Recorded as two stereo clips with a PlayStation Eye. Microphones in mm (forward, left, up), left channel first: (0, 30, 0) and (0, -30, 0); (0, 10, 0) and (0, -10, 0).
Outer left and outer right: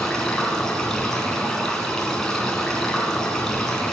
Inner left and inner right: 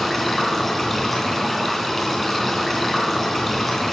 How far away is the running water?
About 3 m.